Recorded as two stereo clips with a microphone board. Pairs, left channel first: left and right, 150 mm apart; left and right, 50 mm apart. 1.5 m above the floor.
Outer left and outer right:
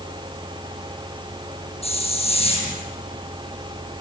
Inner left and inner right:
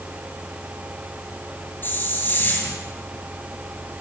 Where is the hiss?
40° left (ahead or behind), 6.5 m.